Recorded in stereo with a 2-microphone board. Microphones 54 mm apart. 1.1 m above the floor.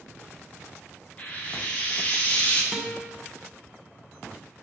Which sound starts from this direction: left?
Frying, at 1.2 s.